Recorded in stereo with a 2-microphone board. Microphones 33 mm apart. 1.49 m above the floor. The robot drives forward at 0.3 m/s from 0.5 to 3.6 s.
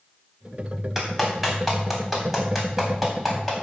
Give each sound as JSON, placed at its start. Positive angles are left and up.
{"t": 0.9, "sound": "a clap", "side_deg": -10, "distance_m": 3.0}